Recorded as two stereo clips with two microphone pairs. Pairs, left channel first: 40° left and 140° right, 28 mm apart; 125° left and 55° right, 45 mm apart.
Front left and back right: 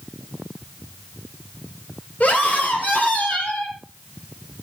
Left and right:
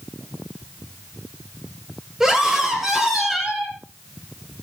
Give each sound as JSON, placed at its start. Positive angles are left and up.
{"t": 2.2, "sound": "a scream", "azimuth_deg": 20, "distance_m": 4.5}